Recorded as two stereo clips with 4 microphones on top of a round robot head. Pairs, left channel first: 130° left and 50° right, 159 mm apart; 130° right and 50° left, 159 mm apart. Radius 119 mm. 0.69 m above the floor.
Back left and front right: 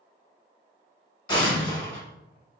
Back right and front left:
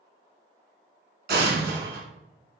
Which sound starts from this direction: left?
An explosion, at 1.3 s.